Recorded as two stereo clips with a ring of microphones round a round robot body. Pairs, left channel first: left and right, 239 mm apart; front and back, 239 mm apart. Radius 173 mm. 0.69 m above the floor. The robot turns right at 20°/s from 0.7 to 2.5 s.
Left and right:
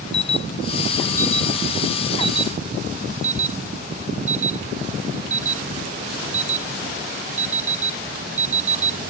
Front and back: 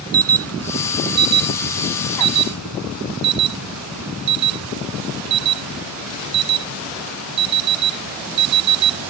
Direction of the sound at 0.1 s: 165° left.